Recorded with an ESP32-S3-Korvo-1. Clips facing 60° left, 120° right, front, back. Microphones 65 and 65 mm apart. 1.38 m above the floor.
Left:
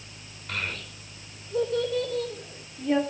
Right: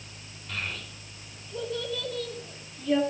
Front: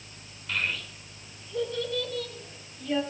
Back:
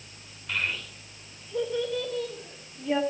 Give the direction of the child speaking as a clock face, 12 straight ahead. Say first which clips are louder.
Left 2 dB, even; 9 o'clock.